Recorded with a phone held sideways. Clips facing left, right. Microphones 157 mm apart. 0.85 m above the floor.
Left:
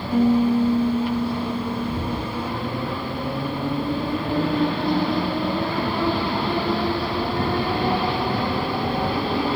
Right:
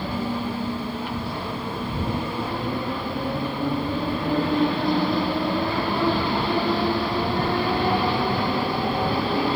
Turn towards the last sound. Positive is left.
turn(degrees=40)  # may be behind; listen again after turning